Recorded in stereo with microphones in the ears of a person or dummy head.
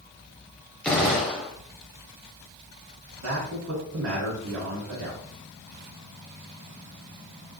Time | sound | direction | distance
0.8 | a gunshot | centre (ahead or behind) | 1.0 m
3.2 | a man speaking | 80° right | 1.7 m